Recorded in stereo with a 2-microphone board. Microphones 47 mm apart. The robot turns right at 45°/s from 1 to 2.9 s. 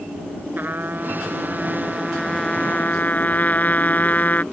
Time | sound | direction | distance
0.6 | a trumpet | 45° right | ?